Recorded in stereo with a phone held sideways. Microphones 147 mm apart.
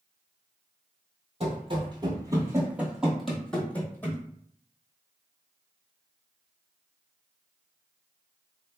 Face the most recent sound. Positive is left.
turn(degrees=15)  # may be behind; listen again after turning